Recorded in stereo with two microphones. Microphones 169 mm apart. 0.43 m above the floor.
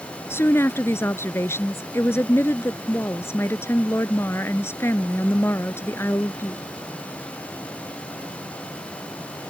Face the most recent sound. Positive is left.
turn(degrees=15)  # may be behind; listen again after turning